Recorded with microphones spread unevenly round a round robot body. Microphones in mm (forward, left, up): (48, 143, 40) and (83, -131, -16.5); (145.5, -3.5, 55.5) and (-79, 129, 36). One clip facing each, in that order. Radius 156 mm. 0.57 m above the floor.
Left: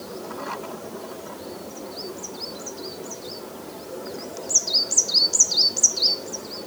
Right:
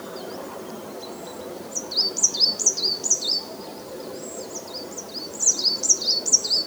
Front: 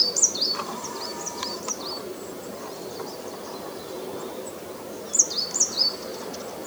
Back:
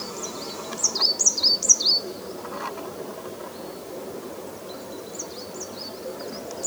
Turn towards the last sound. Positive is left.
No sound to turn to.